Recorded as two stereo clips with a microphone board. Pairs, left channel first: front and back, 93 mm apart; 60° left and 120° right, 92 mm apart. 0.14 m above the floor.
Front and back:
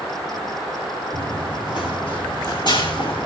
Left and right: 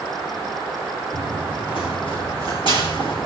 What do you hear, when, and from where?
1.1 s running footsteps: 35° left, 6 m